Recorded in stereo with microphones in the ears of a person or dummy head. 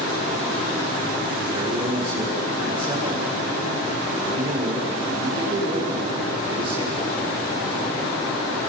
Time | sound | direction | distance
1.5 | a man speaking | 30° right (ahead or behind) | 4 m